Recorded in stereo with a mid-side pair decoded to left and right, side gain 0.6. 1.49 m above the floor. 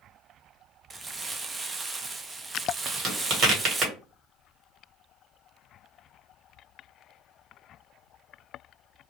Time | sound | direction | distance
0.9 | crumpling | 25° right | 0.5 m
2.9 | a crack | 50° right | 1.5 m